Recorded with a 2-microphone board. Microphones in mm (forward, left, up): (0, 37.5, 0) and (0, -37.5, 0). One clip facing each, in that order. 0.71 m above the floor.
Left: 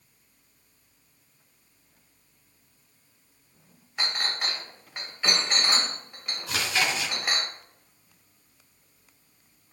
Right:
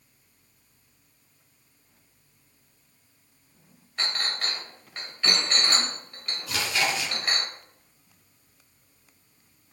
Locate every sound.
4.0 s a clink: 15° left (ahead or behind), 1.8 m
6.5 s chewing: 25° left (ahead or behind), 3 m